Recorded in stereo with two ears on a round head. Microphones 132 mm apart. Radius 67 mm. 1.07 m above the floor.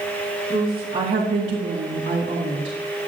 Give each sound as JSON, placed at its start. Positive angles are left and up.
{"t": 0.5, "sound": "a woman speaking", "side_deg": -30, "distance_m": 1.7}